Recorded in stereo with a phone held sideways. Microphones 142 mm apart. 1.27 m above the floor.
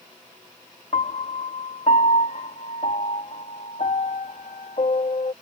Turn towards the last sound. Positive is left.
turn(degrees=55)  # may be behind; listen again after turning